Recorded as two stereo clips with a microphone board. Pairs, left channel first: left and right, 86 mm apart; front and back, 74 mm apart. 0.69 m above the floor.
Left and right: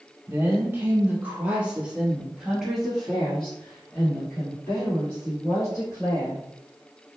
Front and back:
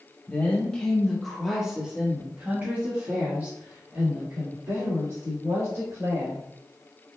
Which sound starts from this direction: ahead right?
A woman speaking, at 0.3 s.